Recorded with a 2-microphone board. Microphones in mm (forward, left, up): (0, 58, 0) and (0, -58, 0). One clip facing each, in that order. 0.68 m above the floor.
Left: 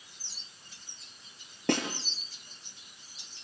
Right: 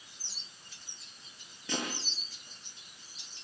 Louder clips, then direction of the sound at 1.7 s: Left 8 dB; 60° left (ahead or behind).